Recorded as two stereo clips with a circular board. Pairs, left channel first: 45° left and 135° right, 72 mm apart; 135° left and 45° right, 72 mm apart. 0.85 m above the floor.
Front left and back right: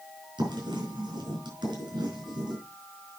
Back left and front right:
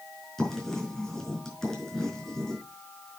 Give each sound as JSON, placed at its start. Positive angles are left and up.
{"t": 0.4, "sound": "writing", "azimuth_deg": -145, "distance_m": 4.0}